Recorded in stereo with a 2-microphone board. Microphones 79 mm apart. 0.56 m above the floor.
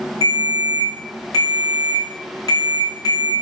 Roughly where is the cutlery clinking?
No cutlery clinking in this recording.